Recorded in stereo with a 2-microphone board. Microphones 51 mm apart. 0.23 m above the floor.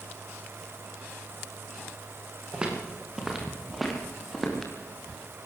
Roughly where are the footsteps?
Centre.